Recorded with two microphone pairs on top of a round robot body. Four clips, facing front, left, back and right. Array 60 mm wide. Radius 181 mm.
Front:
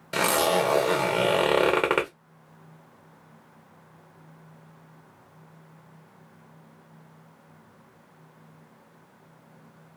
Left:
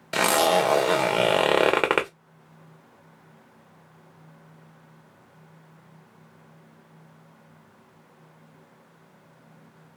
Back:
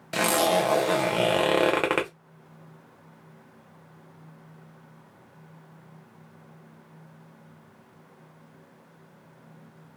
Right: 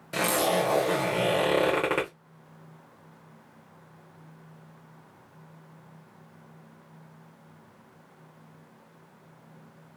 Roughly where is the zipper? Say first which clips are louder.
Left 5 dB, even; left.